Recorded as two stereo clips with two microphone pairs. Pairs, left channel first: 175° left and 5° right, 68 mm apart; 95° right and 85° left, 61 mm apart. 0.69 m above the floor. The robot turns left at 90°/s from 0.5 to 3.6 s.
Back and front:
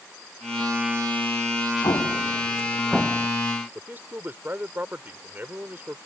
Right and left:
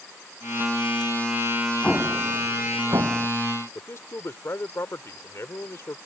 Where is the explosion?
170° right; by 3.3 s 60° left.